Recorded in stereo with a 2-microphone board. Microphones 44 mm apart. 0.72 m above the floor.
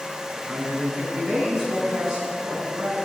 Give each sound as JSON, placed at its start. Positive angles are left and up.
{"t": 0.3, "sound": "a man speaking", "side_deg": 0, "distance_m": 6.0}